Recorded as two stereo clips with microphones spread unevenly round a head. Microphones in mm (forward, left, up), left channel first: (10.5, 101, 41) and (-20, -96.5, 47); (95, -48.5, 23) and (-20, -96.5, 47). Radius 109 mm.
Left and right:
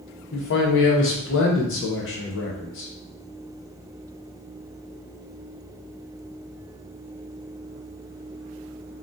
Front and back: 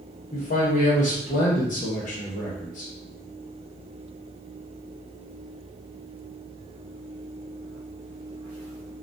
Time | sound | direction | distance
0.3 | a man speaking | 55° left | 0.8 m